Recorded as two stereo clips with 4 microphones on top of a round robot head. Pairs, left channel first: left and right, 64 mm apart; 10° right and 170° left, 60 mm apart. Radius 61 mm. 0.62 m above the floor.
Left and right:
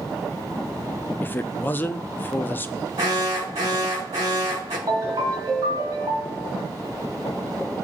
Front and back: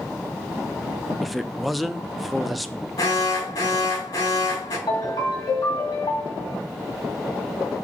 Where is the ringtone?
35° right, 2.5 m.